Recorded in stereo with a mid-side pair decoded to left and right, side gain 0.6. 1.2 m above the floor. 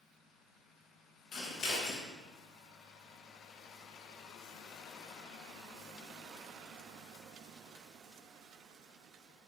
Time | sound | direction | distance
1.3 | scissors | 45° left | 1.4 m